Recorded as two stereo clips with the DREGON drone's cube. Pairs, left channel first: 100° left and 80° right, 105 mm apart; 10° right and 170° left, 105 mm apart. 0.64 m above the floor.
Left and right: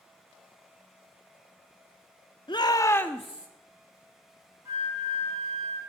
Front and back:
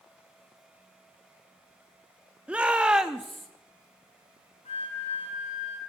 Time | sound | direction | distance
2.5 | a shout | 95° left | 0.9 m
4.7 | a flute | 15° right | 6.5 m